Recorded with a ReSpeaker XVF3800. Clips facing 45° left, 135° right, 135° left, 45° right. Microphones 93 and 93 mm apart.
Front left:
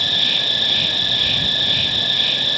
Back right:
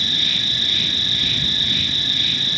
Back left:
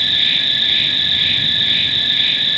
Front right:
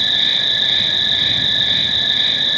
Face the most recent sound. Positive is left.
turn(degrees=20)